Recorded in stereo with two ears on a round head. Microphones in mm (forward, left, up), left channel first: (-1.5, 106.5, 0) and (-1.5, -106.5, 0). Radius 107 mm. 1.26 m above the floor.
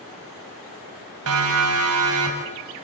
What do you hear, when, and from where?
1.3 s a siren: 65° right (ahead or behind), 8 m; by 2.8 s 75° right (ahead or behind), 9 m